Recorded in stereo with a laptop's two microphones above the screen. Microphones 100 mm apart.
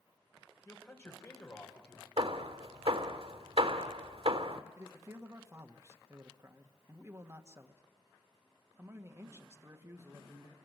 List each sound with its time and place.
0.7 s a man speaking: 30° left (ahead or behind), 4 m
2.2 s hammering: 90° right, 1.8 m
4.8 s a man speaking: 30° right (ahead or behind), 1.6 m